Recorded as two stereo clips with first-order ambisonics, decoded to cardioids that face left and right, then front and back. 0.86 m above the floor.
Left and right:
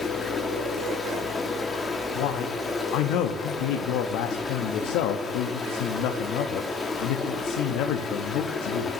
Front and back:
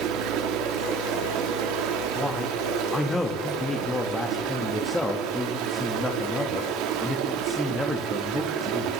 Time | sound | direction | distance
0.0 | running water | 165° left | 1.2 m
2.1 | a man speaking | 80° left | 1.0 m